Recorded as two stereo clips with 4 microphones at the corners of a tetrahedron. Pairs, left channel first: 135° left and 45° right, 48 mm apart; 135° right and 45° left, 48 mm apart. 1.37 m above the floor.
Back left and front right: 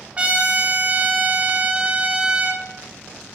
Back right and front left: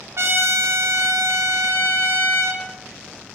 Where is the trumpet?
20° left, 0.7 m.